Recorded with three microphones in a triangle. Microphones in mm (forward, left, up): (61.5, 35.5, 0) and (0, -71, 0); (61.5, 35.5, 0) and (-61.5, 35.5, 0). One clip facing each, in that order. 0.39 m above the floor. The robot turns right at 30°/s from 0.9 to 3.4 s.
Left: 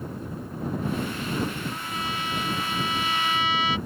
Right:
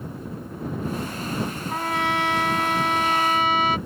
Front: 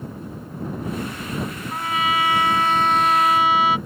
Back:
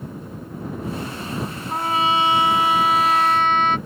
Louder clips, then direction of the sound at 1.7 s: Right 7 dB, back 3 dB; 130° right.